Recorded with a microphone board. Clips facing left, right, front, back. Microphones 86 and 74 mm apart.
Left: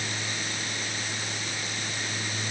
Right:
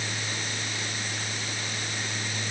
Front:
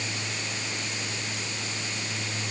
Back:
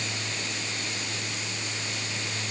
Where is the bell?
I don't hear a bell.